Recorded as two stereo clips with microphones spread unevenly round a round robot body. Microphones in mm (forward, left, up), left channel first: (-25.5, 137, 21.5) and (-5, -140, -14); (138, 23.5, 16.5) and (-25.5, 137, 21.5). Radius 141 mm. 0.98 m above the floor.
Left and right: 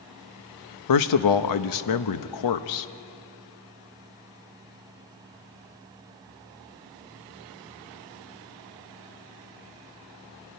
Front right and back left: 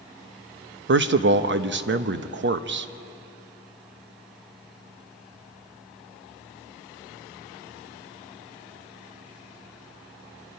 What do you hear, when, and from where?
0.9 s a man speaking: 115° left, 0.9 m